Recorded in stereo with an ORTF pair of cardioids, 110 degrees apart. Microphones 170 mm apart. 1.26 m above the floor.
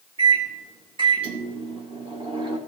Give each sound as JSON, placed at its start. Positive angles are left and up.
{"t": 0.2, "sound": "a microwave", "azimuth_deg": -30, "distance_m": 1.5}